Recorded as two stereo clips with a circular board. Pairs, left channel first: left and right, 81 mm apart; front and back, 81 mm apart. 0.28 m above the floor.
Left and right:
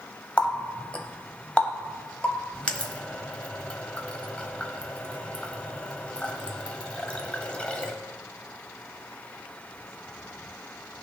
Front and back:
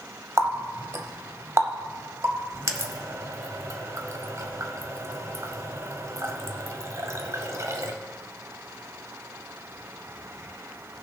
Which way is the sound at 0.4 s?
160° left.